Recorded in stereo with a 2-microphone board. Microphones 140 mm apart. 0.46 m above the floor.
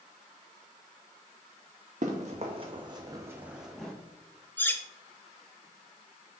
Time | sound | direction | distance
2.0 | running footsteps | 55° right (ahead or behind) | 1.5 m
4.6 | cutlery clinking | 15° left (ahead or behind) | 0.7 m